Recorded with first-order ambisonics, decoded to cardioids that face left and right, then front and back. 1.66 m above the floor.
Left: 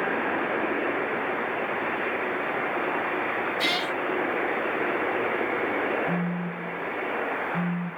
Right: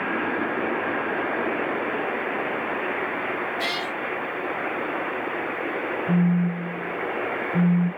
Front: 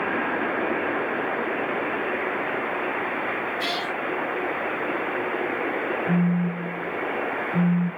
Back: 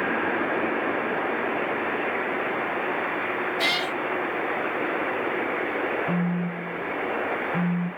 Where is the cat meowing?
170° left, 1.0 m.